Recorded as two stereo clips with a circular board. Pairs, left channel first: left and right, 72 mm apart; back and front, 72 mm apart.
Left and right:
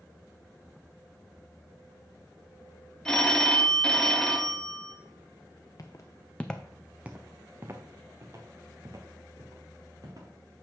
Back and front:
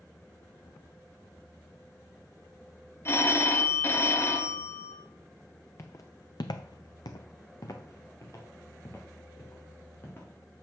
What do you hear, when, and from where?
3.0 s a phone ringing: 165° left, 0.8 m
5.8 s footsteps: 130° left, 0.9 m; by 10.3 s 120° right, 3 m